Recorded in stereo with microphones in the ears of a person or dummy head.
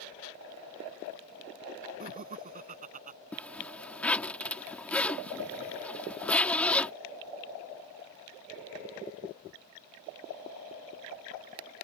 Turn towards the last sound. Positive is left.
turn(degrees=5)  # may be behind; listen again after turning